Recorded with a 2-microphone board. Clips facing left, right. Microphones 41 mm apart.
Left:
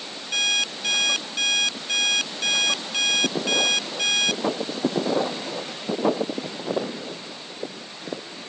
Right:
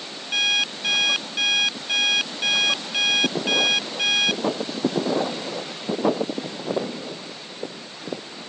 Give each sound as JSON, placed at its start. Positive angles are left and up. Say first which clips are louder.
{"t": 0.3, "sound": "an alarm clock", "louder": "right 2 dB", "side_deg": -10}